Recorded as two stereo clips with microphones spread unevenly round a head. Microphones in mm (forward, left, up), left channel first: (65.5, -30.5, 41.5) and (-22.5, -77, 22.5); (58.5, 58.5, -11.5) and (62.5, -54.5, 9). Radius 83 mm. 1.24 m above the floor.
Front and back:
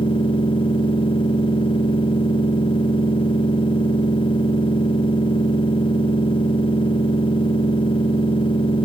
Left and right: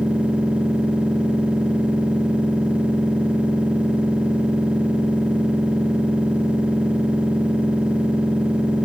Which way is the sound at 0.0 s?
5° right.